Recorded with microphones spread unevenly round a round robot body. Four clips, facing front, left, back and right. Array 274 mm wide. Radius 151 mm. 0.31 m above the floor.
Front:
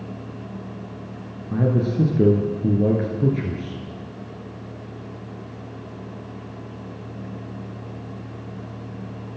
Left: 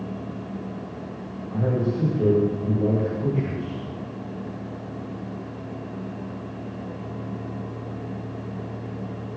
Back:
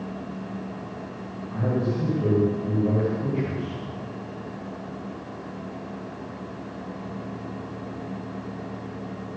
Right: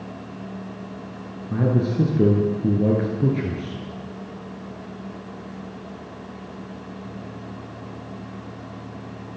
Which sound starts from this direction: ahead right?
A man speaking, at 1.5 s.